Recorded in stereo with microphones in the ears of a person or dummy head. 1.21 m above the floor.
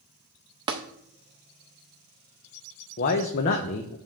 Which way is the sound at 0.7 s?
20° right (ahead or behind).